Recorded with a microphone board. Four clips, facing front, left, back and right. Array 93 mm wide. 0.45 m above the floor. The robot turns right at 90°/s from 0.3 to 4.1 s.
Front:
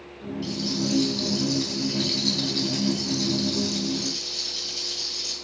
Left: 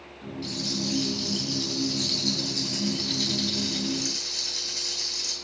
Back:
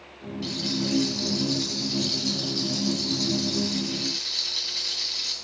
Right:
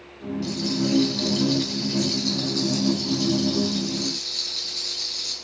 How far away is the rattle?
About 3.5 m.